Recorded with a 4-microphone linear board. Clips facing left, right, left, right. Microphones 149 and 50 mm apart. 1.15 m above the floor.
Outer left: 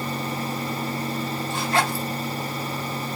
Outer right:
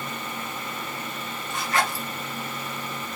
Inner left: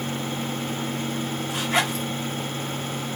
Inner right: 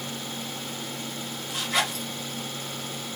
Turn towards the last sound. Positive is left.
turn(degrees=30)  # may be behind; listen again after turning